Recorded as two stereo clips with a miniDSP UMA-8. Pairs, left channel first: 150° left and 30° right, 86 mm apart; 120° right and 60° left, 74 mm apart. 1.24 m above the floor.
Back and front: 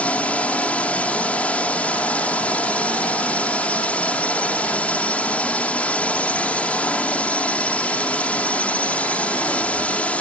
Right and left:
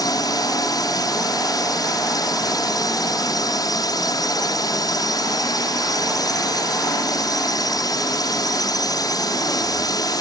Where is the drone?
135° right.